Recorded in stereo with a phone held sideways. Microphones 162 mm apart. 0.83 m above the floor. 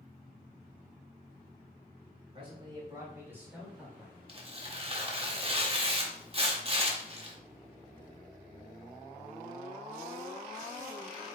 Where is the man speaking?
35° right (ahead or behind), 3 m; by 4.2 s centre (ahead or behind), 4 m.